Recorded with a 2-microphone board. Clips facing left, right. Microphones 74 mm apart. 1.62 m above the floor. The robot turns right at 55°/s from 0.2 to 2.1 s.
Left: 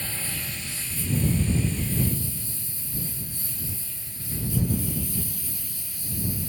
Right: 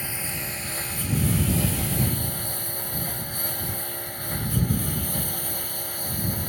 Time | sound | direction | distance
0.0 | a lawn mower | 15° right (ahead or behind) | ?